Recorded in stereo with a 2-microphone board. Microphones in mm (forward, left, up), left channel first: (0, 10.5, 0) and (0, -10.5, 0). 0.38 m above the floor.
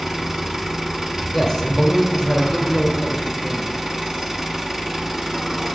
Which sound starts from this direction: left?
A man speaking, at 1.3 s.